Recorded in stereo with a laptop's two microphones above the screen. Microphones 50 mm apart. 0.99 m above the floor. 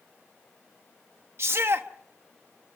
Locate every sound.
1.4 s a shout: 55° right (ahead or behind), 1.0 m